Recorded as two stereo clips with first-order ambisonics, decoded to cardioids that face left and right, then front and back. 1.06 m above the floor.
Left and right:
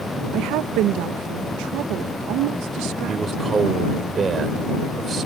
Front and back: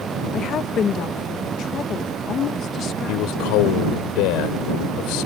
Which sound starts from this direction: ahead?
A man speaking, at 3.1 s.